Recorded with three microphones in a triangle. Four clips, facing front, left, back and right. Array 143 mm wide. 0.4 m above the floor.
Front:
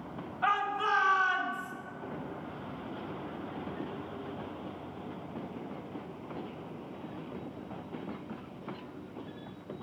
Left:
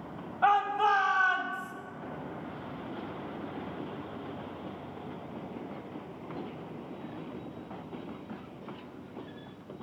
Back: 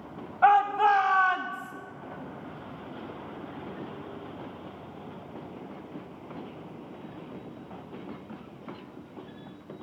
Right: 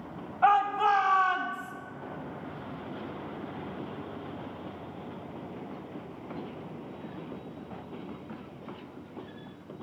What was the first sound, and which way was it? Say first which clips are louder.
A shout: right 2 dB, back 10 dB; 170° left.